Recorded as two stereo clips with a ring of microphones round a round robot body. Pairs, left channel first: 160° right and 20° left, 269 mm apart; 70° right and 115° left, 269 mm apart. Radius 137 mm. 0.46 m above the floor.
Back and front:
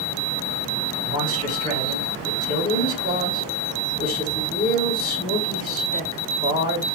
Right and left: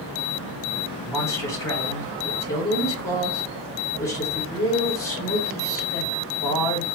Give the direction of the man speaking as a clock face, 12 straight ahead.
5 o'clock.